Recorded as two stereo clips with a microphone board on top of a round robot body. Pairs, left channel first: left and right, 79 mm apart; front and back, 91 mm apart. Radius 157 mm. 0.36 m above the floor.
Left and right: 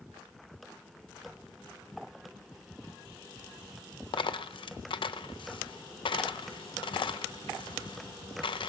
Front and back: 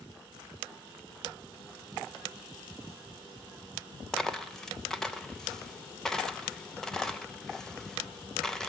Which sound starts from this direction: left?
A dropped coin, at 4.1 s.